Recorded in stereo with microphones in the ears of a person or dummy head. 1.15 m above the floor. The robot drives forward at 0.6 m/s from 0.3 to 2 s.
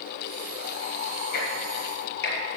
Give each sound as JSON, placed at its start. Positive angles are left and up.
{"t": 1.3, "sound": "ticking", "side_deg": 65, "distance_m": 4.5}